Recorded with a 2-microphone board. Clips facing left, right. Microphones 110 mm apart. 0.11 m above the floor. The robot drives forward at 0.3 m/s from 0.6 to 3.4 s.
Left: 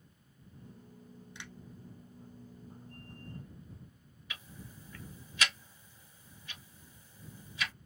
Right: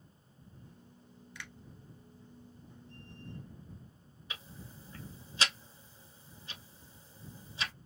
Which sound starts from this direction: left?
A finger snap, at 1.4 s.